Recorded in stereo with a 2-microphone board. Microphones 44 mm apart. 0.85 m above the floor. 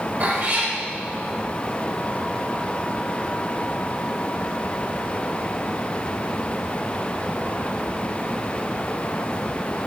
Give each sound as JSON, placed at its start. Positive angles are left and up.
{"t": 0.2, "sound": "a cat meowing", "side_deg": -45, "distance_m": 0.9}